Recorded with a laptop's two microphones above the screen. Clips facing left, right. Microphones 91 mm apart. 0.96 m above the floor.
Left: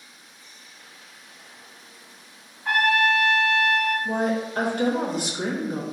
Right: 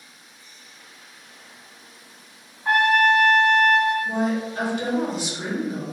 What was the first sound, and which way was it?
A trumpet, 30° right (ahead or behind).